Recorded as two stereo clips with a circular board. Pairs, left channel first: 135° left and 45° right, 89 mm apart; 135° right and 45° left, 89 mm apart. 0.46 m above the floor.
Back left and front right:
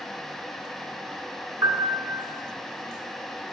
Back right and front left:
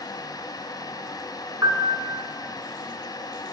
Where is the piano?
5° right, 2.5 m.